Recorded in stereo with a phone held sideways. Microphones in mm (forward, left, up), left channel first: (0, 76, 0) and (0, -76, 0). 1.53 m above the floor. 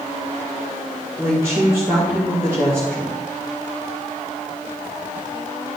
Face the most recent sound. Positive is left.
turn(degrees=-20)  # may be behind; listen again after turning